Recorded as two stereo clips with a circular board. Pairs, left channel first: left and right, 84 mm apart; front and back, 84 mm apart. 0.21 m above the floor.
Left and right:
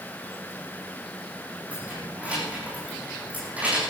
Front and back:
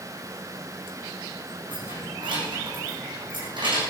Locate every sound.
1.7 s keys jangling: 165° right, 8 m